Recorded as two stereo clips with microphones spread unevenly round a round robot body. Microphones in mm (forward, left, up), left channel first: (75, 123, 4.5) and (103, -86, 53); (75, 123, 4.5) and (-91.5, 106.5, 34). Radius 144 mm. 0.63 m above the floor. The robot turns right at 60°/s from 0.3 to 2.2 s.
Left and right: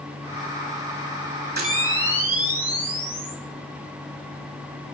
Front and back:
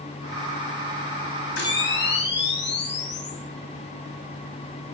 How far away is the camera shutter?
About 4.5 m.